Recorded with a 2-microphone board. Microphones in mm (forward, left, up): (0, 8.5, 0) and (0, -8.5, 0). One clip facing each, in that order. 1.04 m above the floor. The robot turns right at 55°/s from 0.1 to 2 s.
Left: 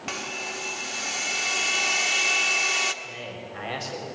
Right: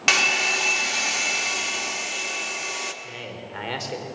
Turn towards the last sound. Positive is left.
turn(degrees=-80)